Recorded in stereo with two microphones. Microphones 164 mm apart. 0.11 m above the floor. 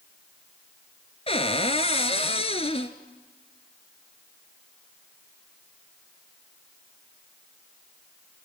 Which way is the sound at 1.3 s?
35° left (ahead or behind).